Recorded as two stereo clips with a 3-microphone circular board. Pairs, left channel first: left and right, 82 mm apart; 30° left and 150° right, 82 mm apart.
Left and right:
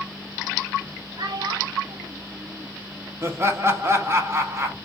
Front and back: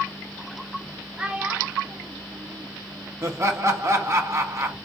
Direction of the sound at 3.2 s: 125° right.